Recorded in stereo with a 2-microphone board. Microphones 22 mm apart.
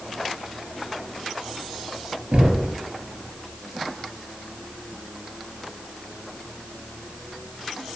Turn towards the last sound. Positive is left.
turn(degrees=-50)  # may be behind; listen again after turning